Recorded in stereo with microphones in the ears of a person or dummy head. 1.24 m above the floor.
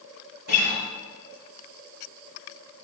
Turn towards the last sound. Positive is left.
turn(degrees=-55)  # may be behind; listen again after turning